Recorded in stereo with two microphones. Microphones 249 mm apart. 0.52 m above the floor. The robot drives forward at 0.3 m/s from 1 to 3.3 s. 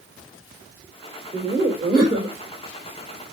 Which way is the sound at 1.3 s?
25° right (ahead or behind).